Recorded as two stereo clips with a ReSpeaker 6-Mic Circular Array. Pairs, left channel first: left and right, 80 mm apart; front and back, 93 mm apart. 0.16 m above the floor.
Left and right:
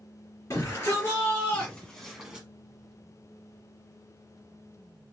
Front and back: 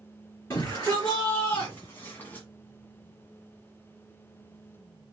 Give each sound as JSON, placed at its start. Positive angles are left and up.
{"t": 0.5, "sound": "a shout", "azimuth_deg": 60, "distance_m": 2.5}